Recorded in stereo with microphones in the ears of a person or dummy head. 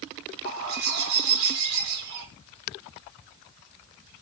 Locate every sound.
0.5 s a bird: 75° right (ahead or behind), 4.5 m